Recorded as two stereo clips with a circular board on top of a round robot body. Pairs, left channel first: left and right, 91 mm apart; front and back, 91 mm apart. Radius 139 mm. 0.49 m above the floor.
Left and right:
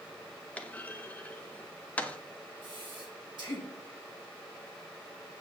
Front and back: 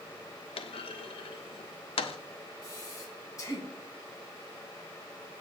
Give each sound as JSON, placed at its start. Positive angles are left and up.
{"t": 0.6, "sound": "a clunk", "azimuth_deg": 15, "distance_m": 0.5}
{"t": 2.6, "sound": "breathing", "azimuth_deg": -55, "distance_m": 2.5}